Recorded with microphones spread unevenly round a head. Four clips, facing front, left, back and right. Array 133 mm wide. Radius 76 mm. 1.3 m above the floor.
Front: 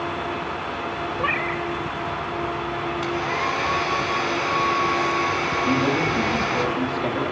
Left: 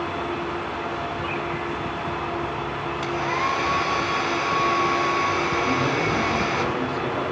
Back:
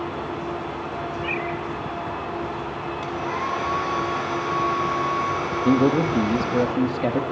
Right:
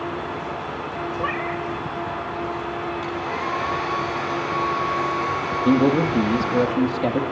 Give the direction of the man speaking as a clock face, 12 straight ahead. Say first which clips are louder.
Right 5 dB, back 5 dB; 5 o'clock.